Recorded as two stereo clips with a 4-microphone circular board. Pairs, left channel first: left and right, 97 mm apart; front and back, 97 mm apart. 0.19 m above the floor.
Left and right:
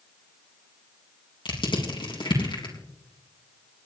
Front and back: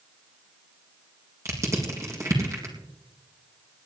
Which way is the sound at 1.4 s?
120° left.